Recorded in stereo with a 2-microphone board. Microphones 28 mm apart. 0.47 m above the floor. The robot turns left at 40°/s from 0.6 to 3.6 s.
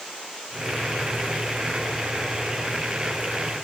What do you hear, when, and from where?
Only background noise.